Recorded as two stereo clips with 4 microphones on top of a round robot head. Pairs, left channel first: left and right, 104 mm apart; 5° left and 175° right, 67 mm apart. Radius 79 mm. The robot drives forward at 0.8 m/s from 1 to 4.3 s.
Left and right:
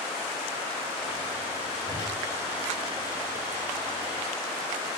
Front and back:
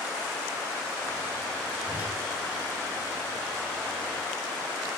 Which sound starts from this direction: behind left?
A whoosh, at 1.9 s.